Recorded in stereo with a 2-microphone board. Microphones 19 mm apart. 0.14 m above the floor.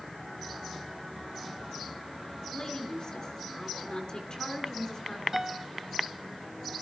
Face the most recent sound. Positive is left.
turn(degrees=-25)  # may be behind; listen again after turning